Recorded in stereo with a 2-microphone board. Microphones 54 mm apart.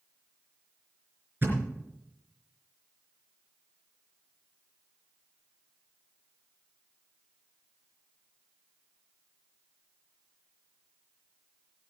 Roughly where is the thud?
Right.